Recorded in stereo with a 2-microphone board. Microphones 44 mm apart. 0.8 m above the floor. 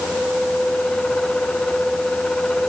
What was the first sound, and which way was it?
Only background noise.